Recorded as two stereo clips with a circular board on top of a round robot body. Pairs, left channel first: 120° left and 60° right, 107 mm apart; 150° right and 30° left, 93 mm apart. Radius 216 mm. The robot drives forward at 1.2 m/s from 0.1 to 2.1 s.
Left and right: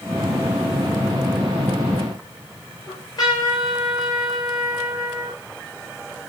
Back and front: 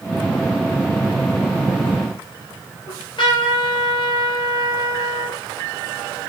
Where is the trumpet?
170° left, 3 m.